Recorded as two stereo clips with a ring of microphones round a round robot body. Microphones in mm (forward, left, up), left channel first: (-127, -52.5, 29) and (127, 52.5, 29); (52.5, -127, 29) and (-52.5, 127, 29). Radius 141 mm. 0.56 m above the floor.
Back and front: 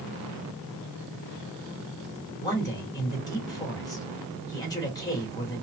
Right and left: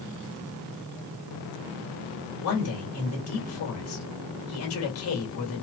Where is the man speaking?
80° right, 1.6 m.